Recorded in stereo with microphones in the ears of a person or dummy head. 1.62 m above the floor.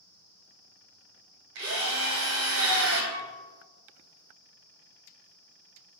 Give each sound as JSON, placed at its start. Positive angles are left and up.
{"t": 1.6, "sound": "a drill", "side_deg": -60, "distance_m": 1.0}
{"t": 3.1, "sound": "a piano", "side_deg": -50, "distance_m": 0.6}